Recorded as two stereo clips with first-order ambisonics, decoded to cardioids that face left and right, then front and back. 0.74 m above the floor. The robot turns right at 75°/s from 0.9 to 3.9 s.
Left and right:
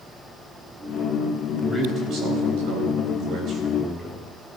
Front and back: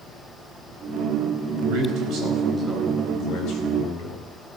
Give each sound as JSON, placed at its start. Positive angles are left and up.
{"t": 1.6, "sound": "a man speaking", "azimuth_deg": -175, "distance_m": 4.0}